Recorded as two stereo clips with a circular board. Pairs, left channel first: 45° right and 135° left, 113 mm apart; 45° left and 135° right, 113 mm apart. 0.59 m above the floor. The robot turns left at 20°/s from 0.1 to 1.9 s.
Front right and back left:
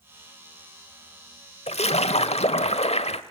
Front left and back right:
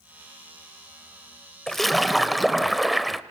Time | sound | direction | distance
1.7 | a splash | 40° right | 0.8 m